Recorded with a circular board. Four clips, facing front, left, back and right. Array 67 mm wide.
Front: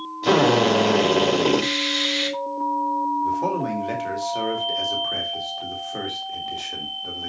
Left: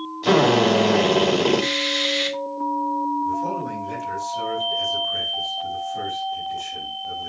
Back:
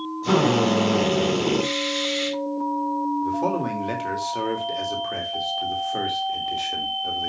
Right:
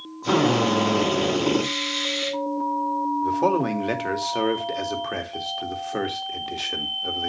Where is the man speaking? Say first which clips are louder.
Right 3 dB, front 1 dB; 95° right, 2 m.